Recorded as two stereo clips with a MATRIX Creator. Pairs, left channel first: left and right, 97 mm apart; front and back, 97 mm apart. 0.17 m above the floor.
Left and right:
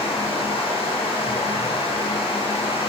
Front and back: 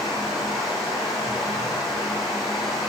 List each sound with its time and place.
0.0 s running water: 90° left, 8 m